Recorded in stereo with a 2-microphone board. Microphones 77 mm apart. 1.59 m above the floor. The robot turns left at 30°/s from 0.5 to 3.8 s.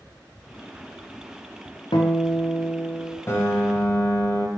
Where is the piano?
30° left (ahead or behind), 0.7 m; by 4.5 s 25° left (ahead or behind), 0.7 m.